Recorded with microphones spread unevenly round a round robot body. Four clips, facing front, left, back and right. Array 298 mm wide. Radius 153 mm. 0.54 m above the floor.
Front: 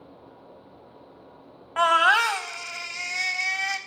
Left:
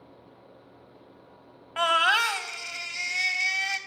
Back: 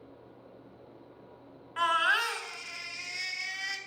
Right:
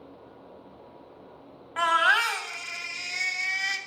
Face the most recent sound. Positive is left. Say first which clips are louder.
# right 1 dB, front 8 dB
turn(degrees=10)